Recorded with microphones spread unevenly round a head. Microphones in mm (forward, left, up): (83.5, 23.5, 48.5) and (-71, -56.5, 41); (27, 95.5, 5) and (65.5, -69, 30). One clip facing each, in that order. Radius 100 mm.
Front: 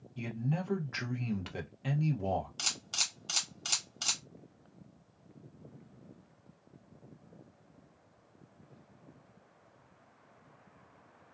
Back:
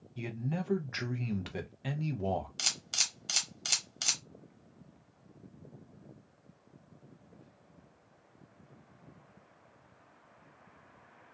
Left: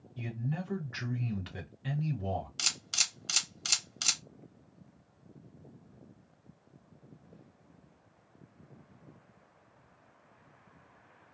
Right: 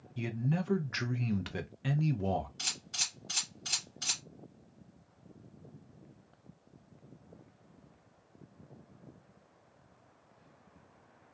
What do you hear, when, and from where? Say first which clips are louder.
0.2 s a man speaking: front 1 dB, right 4 dB; 70° right, 0.5 m
2.6 s a camera shutter: front 1 dB, left 1 dB; 130° left, 0.7 m